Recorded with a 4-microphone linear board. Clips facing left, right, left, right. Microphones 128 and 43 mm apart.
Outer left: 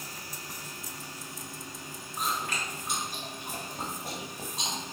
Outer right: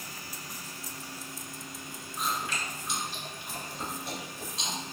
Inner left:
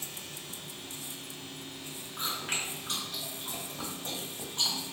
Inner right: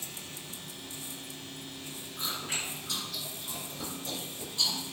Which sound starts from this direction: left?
Chewing, at 2.2 s.